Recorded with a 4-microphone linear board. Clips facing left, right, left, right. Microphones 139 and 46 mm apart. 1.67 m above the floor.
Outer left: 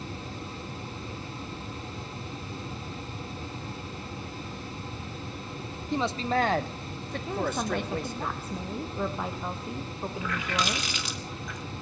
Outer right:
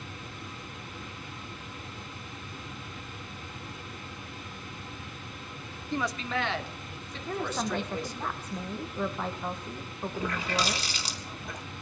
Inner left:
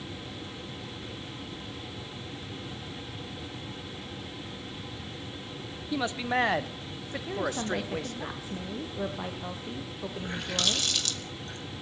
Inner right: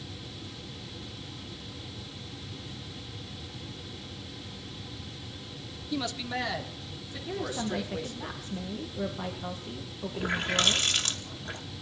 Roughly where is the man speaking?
Centre.